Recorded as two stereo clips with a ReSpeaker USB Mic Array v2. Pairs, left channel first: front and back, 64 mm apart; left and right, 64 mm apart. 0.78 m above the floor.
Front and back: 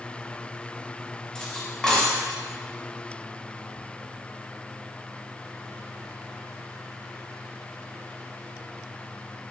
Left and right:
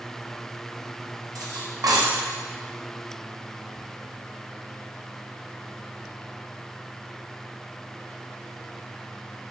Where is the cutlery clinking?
80° right, 0.6 m.